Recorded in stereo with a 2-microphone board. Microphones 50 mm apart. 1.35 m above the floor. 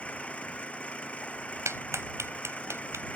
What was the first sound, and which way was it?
An engine running, 25° left (ahead or behind).